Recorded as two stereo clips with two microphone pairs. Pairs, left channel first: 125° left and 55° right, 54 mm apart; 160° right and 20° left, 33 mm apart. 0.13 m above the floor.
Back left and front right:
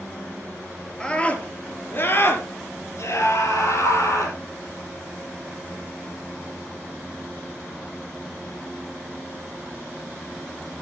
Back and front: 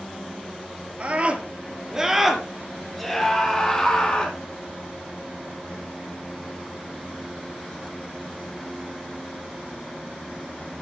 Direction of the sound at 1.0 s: 60° left.